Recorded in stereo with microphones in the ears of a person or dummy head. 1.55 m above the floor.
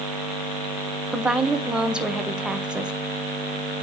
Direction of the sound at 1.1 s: Centre (ahead or behind).